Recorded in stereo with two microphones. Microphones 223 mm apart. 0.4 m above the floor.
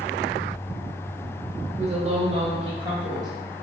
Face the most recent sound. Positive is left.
turn(degrees=-20)  # may be behind; listen again after turning